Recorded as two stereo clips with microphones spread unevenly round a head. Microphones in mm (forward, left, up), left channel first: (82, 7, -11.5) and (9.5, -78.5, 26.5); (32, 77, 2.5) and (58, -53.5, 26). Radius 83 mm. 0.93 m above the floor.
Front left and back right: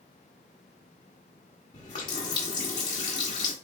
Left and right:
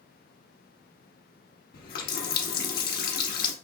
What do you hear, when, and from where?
1.7 s a running tap: 115° left, 0.8 m